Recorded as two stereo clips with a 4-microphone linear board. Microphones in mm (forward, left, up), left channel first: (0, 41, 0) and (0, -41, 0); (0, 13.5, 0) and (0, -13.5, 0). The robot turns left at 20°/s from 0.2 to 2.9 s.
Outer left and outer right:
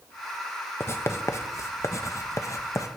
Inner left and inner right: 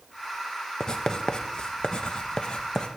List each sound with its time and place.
0.8 s writing: 30° left (ahead or behind), 0.8 m; by 2.9 s 40° left (ahead or behind), 0.8 m